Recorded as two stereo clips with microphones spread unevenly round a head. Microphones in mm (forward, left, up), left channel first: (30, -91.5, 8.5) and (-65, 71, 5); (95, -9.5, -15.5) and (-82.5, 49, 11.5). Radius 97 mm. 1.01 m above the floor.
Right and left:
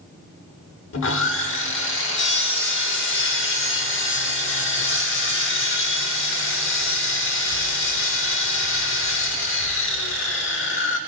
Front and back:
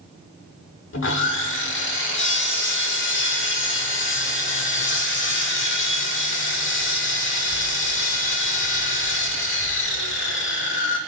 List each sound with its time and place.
0.9 s sawing: 45° right, 1.1 m